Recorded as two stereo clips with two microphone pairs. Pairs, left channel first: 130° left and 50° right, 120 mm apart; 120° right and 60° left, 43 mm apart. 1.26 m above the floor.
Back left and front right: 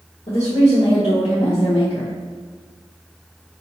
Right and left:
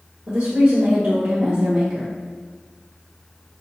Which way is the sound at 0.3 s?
95° left.